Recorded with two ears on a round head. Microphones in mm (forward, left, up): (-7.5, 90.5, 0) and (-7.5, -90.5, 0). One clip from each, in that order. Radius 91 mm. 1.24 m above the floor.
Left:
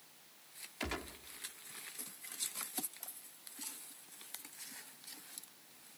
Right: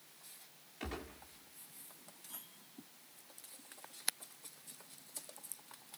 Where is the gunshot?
50° left (ahead or behind), 1.7 m.